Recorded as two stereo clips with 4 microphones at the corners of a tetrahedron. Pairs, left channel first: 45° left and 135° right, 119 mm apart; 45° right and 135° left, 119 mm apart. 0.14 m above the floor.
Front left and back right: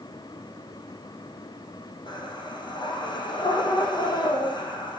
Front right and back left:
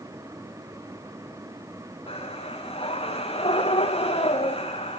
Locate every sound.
2.1 s breathing: 5° right, 6 m